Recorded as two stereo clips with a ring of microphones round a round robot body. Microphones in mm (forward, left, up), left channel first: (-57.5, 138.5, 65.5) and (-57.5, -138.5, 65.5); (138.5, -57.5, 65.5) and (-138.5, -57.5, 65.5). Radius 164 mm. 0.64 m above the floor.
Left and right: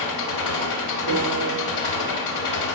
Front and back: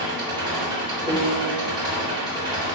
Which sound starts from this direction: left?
An engine running, at 0.0 s.